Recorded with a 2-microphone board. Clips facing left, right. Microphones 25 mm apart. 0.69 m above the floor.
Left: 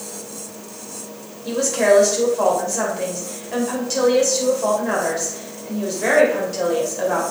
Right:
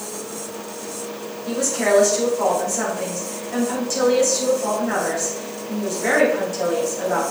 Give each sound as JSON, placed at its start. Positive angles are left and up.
{"t": 1.4, "sound": "a woman speaking", "side_deg": 30, "distance_m": 2.5}